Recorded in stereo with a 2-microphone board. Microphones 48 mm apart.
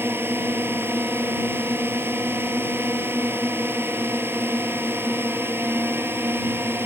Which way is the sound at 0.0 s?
50° right (ahead or behind).